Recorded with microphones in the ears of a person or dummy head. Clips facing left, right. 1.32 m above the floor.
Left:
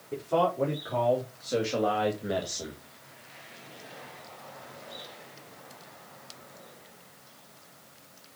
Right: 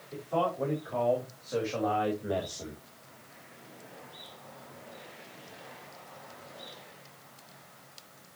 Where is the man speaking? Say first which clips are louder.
Left 4 dB; 65° left (ahead or behind), 4.5 m; by 2.8 s 10° left (ahead or behind), 2.0 m.